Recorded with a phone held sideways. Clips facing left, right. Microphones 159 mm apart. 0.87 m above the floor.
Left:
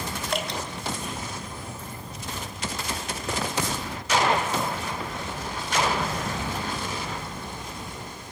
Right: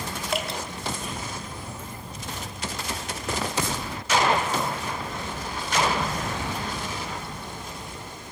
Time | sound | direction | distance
0.3 | dripping | 5° right (ahead or behind) | 2.5 m